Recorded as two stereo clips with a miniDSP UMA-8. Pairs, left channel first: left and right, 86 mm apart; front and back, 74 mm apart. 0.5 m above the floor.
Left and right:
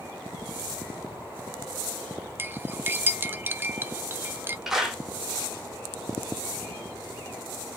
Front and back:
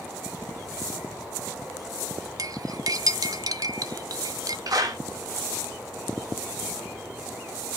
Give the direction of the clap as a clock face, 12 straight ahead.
6 o'clock.